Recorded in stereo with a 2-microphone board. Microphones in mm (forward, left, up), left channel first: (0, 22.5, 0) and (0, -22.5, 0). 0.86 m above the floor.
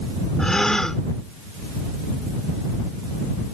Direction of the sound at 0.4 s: 15° left (ahead or behind).